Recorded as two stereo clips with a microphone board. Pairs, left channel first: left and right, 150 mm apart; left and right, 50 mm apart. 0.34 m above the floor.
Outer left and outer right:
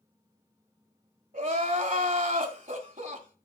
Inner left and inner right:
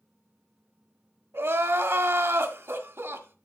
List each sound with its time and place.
1.3 s crying: 60° right (ahead or behind), 1.3 m